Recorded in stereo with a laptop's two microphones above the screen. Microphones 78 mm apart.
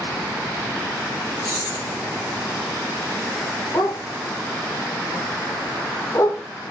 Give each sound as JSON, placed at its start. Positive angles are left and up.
{"t": 1.4, "sound": "keys jangling", "side_deg": 60, "distance_m": 1.7}
{"t": 3.7, "sound": "a dog barking", "side_deg": 45, "distance_m": 0.8}